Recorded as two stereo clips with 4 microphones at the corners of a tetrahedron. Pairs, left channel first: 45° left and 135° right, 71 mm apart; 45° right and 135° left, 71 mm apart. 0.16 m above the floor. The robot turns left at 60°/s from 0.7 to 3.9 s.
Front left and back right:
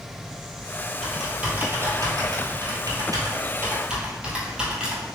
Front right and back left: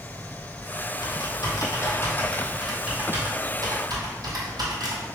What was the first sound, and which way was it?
Typing on a keyboard, 40° right.